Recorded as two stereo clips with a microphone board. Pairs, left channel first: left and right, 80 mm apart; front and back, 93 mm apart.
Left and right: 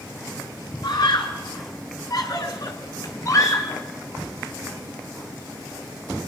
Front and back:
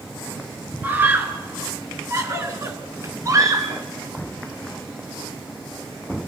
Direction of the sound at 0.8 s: 110° left.